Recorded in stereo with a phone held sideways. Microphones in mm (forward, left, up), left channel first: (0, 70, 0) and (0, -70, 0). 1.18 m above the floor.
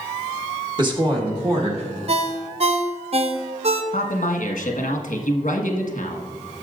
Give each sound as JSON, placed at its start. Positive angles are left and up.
{"t": 0.8, "sound": "a woman speaking", "side_deg": -30, "distance_m": 1.3}
{"t": 2.1, "sound": "a ringtone", "side_deg": -45, "distance_m": 0.6}
{"t": 3.9, "sound": "a man speaking", "side_deg": 60, "distance_m": 1.3}